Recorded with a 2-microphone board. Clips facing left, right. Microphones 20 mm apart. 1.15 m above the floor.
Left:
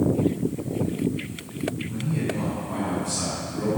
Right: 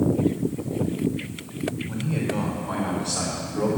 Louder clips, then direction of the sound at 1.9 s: Right 1 dB; 55° right (ahead or behind).